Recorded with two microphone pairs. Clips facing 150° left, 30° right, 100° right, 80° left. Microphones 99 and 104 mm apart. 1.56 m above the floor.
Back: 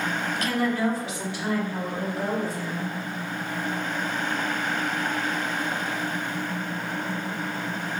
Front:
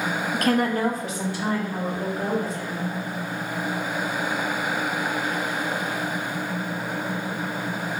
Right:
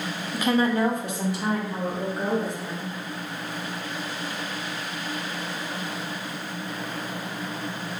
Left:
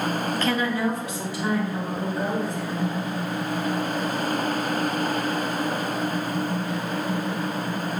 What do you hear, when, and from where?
0.3 s a woman speaking: 15° right, 0.6 m; by 2.9 s 90° right, 4 m